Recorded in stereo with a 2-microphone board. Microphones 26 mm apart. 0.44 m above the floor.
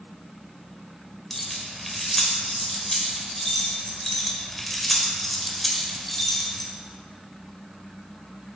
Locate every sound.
1.3 s keys jangling: 10° left (ahead or behind), 1.4 m